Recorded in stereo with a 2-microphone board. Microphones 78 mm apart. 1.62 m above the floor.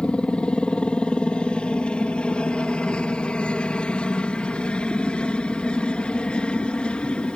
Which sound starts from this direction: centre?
A helicopter, at 0.0 s.